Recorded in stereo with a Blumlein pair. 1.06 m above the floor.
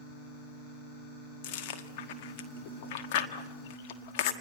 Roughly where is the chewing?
Ahead left.